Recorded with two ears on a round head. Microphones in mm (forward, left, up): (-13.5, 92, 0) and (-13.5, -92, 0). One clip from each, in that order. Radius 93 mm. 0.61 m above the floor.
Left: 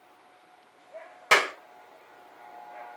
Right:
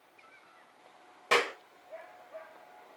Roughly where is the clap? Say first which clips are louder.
Left 6 dB; left.